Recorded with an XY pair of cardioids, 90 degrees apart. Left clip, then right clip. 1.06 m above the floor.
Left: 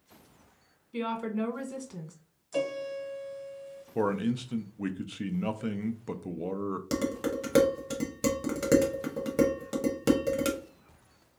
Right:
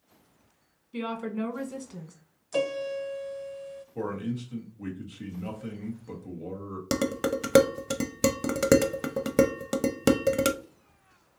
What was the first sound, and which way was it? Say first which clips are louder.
A woman speaking: left 1 dB; 5° left.